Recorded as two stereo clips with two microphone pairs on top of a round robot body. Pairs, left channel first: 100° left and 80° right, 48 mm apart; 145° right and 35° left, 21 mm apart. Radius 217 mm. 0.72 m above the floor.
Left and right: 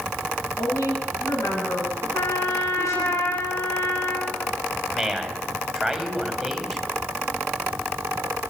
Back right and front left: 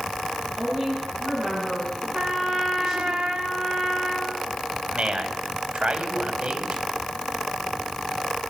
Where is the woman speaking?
100° left, 9.5 m.